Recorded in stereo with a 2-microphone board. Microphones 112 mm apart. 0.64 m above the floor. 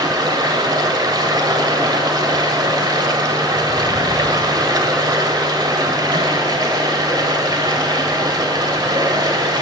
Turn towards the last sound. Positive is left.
turn(degrees=-35)  # may be behind; listen again after turning